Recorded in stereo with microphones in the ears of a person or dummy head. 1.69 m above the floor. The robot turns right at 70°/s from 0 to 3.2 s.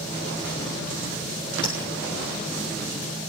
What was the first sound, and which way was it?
Tapping, 25° left (ahead or behind).